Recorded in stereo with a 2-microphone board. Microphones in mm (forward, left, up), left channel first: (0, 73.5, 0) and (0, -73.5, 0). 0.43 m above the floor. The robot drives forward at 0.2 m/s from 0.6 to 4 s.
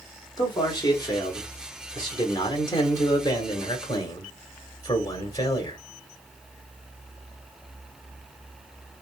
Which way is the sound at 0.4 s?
25° left (ahead or behind).